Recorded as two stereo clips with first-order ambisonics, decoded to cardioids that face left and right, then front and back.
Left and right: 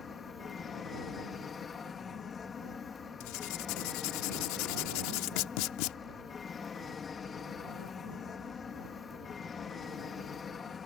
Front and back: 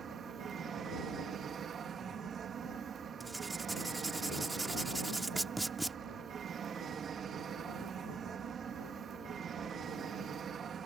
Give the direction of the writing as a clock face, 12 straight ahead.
9 o'clock.